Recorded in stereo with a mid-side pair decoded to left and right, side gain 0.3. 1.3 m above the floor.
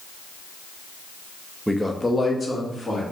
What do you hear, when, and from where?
1.7 s a man speaking: 10° right, 0.8 m; by 3.0 s 50° left, 2.5 m